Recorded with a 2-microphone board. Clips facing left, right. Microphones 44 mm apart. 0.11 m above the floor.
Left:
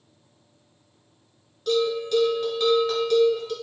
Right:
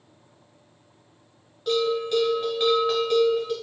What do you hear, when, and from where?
1.7 s a bell: 15° right (ahead or behind), 1.0 m